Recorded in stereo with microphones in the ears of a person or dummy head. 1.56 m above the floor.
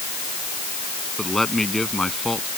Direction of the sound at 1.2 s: Centre (ahead or behind).